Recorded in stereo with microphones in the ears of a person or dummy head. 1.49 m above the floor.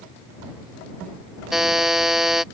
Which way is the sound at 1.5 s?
Centre (ahead or behind).